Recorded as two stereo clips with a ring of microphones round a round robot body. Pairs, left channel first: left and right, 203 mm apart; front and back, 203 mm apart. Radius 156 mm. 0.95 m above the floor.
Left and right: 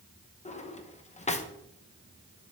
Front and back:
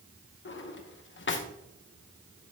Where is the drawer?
30° left, 1.0 m.